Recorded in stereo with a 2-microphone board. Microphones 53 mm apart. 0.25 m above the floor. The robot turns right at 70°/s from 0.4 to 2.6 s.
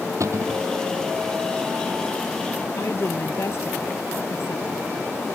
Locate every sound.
0.2 s a cupboard door: 75° right (ahead or behind); by 0.7 s 80° right
2.8 s a woman speaking: 50° left (ahead or behind)